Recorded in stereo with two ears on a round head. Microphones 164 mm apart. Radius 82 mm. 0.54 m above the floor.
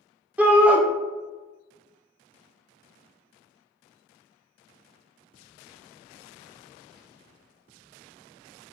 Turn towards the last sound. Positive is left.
turn(degrees=-10)  # may be behind; listen again after turning